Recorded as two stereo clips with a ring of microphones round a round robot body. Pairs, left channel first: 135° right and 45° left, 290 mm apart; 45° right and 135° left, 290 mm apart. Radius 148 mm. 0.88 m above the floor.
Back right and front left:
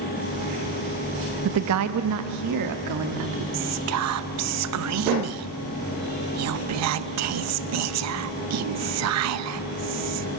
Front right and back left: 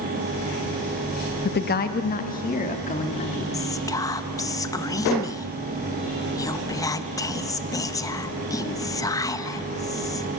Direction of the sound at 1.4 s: 10° left.